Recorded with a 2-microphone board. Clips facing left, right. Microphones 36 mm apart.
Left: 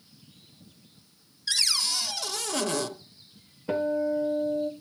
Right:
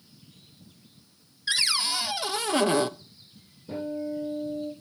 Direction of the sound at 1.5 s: 25° right (ahead or behind).